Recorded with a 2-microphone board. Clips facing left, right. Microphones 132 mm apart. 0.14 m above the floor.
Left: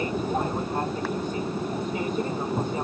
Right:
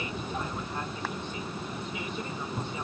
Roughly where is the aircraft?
Left.